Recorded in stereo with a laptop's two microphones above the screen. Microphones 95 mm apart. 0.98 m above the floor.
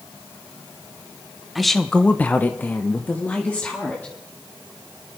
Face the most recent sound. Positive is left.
turn(degrees=15)  # may be behind; listen again after turning